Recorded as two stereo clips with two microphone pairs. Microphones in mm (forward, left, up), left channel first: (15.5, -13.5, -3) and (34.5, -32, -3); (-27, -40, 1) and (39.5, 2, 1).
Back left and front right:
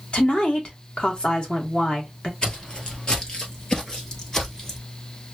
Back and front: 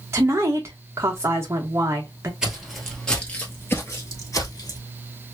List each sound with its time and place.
0.1 s a woman speaking: 85° left, 1.3 m
2.4 s footsteps: 105° left, 1.2 m; by 4.8 s 155° right, 1.7 m